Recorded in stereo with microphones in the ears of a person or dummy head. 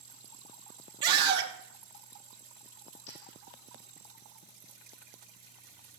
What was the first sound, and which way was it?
A scream, 25° right (ahead or behind).